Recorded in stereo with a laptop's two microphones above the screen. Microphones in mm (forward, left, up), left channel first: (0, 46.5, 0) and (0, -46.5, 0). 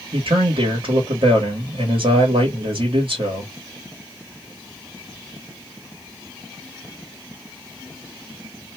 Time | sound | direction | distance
0.1 | a man speaking | 75° right (ahead or behind) | 1.4 m